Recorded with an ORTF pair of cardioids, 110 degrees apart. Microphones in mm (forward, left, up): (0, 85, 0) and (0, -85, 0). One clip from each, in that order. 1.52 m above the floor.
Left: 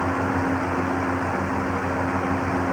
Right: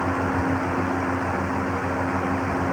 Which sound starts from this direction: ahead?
A fan, at 0.0 s.